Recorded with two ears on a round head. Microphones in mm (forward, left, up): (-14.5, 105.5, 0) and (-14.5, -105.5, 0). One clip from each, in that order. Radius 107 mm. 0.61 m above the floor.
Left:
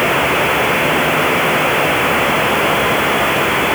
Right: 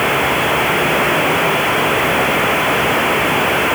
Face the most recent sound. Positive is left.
No sound to turn to.